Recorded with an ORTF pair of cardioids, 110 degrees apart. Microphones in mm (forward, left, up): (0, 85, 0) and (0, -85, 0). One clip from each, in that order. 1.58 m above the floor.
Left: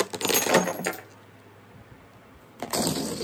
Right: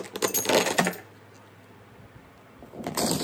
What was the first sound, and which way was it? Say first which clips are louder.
Breaking glass: even; 5° left.